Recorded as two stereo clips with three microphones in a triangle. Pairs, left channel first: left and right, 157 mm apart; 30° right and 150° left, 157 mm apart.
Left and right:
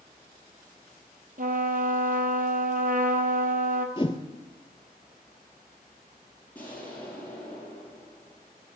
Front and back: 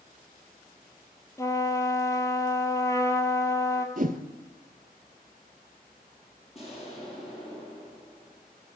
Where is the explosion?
10° left, 2.5 m.